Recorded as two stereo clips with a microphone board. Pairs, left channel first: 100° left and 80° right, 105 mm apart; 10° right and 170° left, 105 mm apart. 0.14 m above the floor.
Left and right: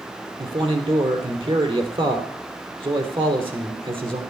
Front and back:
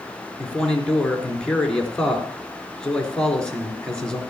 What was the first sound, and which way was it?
A man speaking, 95° right.